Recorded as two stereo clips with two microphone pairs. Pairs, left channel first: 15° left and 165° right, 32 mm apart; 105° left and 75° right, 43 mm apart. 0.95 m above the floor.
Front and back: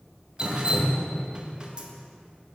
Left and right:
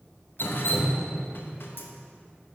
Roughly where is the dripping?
Behind left.